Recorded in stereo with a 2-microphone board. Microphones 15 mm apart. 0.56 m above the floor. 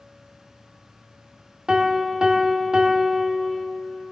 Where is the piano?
55° right (ahead or behind), 0.6 m.